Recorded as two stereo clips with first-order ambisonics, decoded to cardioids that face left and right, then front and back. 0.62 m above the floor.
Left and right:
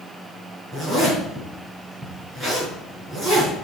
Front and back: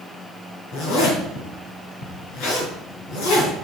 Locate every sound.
0.7 s a zipper: 5° right, 6.5 m